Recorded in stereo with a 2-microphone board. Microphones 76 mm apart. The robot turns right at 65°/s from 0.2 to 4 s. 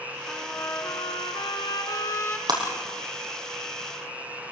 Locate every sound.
0.3 s a trumpet: 20° left, 3 m; by 2.4 s 155° left, 3 m
2.5 s breaking glass: 65° right (ahead or behind), 5 m; by 2.6 s 55° right (ahead or behind), 5 m